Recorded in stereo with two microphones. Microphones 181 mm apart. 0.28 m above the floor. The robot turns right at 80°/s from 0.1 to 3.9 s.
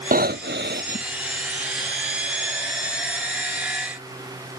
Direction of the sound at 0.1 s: 125° right.